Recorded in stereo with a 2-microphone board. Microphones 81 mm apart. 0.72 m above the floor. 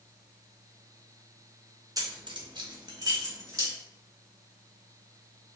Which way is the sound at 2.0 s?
45° right (ahead or behind).